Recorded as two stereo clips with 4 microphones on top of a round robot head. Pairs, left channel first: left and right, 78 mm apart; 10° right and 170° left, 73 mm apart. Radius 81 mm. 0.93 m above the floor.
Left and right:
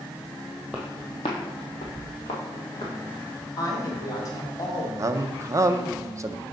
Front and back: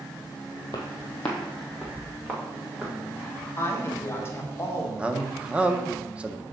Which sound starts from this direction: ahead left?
A woman speaking, at 3.6 s.